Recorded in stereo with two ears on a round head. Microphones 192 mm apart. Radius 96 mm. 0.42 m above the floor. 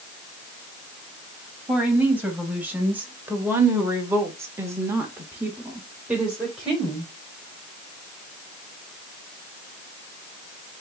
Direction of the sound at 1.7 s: 5° right (ahead or behind).